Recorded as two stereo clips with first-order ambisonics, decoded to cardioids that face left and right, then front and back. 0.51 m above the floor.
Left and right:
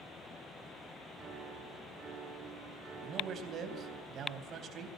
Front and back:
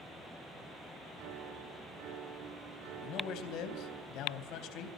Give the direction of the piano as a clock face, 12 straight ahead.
5 o'clock.